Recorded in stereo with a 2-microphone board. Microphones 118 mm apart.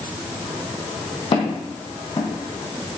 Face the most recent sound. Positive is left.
turn(degrees=50)  # may be behind; listen again after turning